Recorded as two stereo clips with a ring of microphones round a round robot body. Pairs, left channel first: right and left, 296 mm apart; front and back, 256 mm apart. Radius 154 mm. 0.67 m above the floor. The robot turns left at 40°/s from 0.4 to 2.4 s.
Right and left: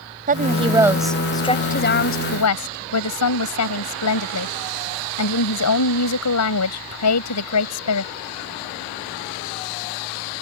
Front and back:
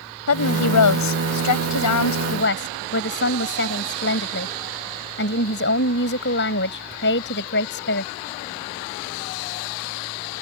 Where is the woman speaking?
25° left; by 8.1 s 55° right.